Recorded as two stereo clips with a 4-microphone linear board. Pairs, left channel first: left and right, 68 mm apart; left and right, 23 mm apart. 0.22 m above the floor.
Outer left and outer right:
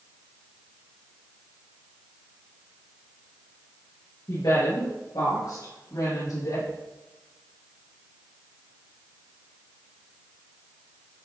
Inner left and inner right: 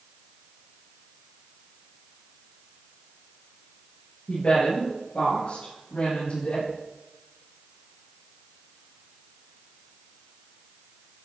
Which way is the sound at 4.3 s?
70° left (ahead or behind).